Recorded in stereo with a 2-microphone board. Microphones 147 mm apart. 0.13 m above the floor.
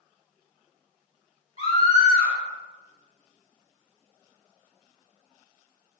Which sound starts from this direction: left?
A scream, at 1.6 s.